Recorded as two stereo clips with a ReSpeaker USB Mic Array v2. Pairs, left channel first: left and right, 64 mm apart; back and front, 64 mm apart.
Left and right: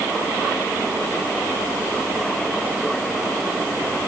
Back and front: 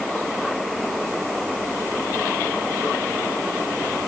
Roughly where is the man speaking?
I don't hear a man speaking.